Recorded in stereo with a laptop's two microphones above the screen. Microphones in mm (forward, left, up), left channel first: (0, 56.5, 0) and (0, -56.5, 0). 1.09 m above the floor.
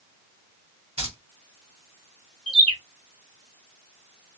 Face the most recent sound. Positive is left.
turn(degrees=-55)  # may be behind; listen again after turning